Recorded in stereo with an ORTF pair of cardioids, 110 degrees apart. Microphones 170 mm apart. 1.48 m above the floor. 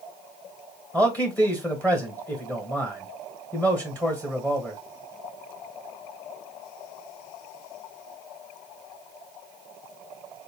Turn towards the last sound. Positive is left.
turn(degrees=10)